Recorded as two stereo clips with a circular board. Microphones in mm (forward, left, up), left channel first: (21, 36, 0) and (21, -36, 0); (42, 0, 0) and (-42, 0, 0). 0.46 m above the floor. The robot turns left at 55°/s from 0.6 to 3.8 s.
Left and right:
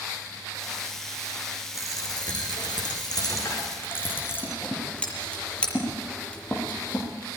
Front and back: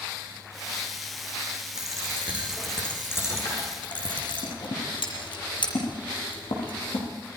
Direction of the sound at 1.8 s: 140° left.